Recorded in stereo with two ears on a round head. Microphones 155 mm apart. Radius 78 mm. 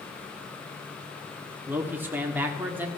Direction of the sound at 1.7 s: 10° right (ahead or behind).